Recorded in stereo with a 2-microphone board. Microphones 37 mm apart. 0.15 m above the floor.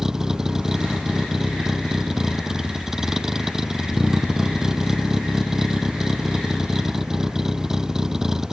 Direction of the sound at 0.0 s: 15° right (ahead or behind).